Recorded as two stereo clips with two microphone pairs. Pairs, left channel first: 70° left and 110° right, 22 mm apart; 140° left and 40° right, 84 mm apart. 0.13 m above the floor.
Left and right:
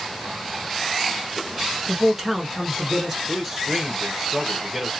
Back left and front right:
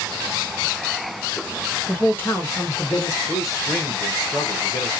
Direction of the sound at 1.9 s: 165° right.